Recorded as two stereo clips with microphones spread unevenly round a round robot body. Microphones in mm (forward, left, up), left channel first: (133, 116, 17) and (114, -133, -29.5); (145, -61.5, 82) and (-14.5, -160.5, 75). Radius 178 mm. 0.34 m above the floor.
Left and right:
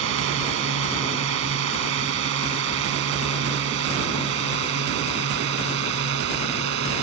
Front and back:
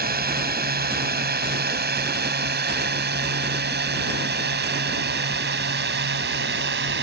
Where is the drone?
125° right; by 7.0 s 145° right.